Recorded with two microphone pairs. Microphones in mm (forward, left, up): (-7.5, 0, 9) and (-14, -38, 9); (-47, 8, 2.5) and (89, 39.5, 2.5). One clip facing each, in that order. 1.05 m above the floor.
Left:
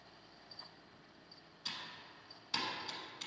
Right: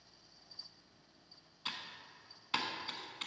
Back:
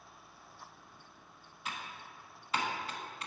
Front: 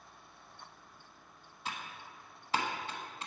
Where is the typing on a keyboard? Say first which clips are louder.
Right 2 dB, front 1 dB; 40° right, 1.0 m.